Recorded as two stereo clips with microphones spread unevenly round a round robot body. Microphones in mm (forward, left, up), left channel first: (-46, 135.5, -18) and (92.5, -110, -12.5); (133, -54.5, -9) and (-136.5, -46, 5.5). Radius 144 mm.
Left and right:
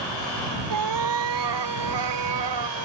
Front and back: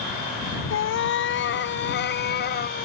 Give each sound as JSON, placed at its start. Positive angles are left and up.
{"t": 0.7, "sound": "a cat meowing", "azimuth_deg": -45}